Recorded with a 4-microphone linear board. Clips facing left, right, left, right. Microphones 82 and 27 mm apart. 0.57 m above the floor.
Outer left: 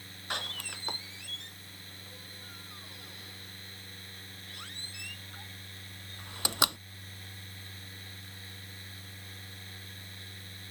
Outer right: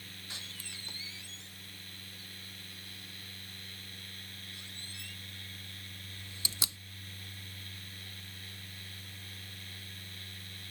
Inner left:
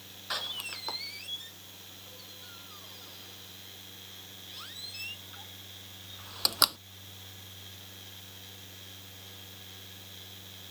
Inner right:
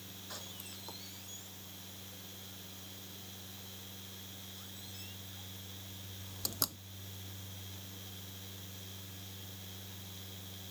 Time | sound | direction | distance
0.3 | a door slam | 60° left (ahead or behind) | ?